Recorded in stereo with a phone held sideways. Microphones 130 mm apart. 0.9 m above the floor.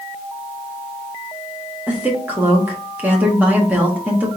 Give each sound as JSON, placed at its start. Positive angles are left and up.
{"t": 1.9, "sound": "a woman speaking", "side_deg": -15, "distance_m": 1.4}